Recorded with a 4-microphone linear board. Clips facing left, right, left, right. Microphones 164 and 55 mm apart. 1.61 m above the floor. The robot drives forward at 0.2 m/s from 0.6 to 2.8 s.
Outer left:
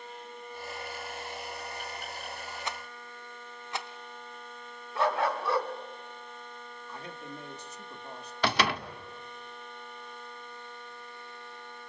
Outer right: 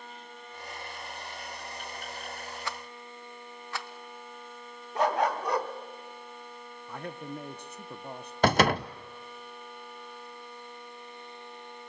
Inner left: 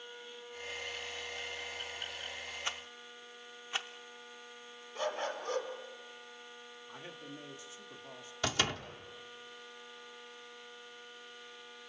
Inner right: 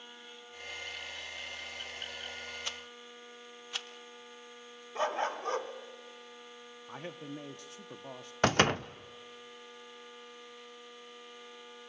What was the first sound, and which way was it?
A rattle, 20° left (ahead or behind).